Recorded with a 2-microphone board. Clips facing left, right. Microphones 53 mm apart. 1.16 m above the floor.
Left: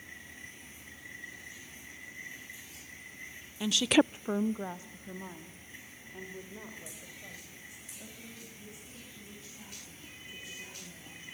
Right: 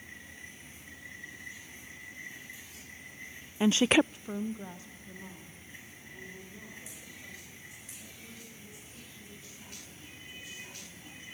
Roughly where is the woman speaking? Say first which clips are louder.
Right 2 dB; right.